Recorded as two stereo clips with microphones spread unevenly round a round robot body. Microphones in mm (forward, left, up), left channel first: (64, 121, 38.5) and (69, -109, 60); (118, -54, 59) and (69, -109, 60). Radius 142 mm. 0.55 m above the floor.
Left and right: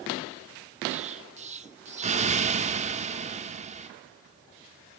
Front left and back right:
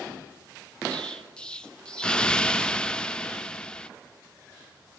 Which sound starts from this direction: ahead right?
An explosion, at 0.9 s.